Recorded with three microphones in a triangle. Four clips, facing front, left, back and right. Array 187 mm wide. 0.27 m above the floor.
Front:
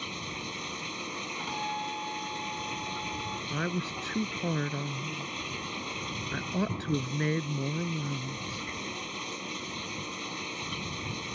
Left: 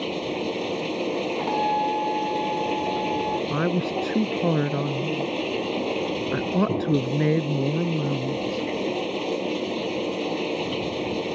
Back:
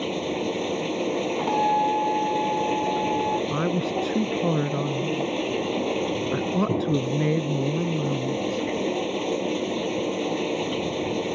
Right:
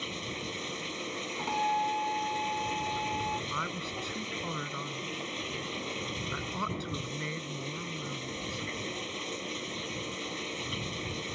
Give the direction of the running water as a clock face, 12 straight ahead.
7 o'clock.